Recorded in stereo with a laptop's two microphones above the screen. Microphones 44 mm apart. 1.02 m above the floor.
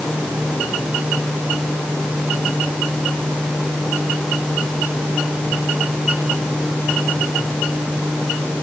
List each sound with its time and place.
Only background noise.